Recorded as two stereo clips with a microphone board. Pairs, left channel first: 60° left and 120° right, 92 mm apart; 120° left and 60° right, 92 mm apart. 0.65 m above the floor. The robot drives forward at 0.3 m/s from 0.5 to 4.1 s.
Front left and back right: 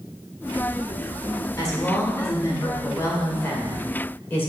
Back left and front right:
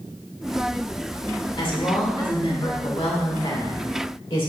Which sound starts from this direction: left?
A woman speaking, at 1.6 s.